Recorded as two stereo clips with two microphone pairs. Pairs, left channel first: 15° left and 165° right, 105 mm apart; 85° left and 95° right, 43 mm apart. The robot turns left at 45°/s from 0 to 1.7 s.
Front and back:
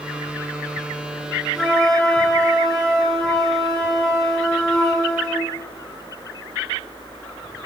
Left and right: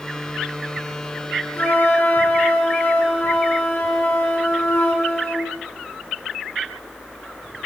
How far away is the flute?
About 3 m.